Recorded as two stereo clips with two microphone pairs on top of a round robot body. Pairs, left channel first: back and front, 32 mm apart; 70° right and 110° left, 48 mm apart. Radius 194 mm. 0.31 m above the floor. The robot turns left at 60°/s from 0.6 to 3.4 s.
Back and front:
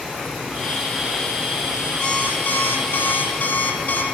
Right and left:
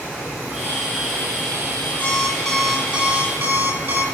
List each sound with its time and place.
2.0 s an alarm clock: 130° right, 9.5 m; by 4.0 s 145° left, 9.5 m